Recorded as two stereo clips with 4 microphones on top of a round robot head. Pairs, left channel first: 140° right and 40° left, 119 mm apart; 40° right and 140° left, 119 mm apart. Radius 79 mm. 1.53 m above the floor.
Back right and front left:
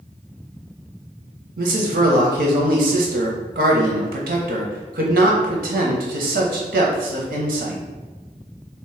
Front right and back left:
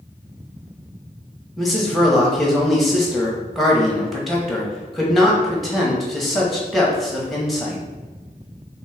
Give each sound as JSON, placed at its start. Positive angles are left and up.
{"t": 1.6, "sound": "a man speaking", "azimuth_deg": 50, "distance_m": 0.9}